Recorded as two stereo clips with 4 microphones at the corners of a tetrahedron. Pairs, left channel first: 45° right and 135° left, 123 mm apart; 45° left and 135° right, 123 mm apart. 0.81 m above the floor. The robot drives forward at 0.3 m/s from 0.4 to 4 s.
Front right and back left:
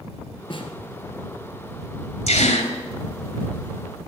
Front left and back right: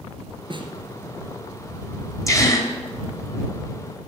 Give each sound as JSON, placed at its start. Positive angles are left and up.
{"t": 0.5, "sound": "a snare drum", "azimuth_deg": -90, "distance_m": 2.5}
{"t": 2.3, "sound": "a gasp", "azimuth_deg": -20, "distance_m": 3.0}